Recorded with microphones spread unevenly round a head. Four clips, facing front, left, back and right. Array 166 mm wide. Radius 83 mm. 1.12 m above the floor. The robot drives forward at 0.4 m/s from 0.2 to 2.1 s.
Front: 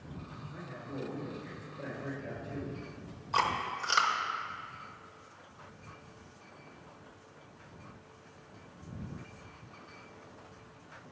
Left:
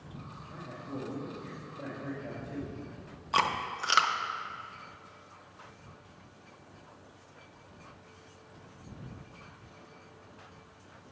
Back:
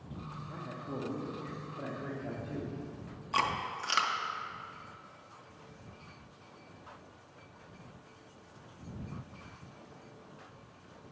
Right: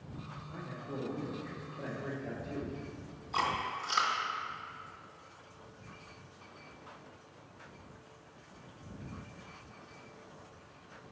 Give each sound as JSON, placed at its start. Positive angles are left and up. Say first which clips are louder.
{"t": 0.5, "sound": "a man speaking", "louder": "left 1 dB, back 2 dB", "azimuth_deg": 180, "distance_m": 1.7}
{"t": 3.3, "sound": "chewing", "louder": "left 4 dB, front 2 dB", "azimuth_deg": 90, "distance_m": 0.7}